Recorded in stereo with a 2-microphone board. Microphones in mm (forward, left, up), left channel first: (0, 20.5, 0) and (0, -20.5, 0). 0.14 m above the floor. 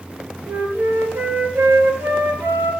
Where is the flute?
80° right, 6.5 m.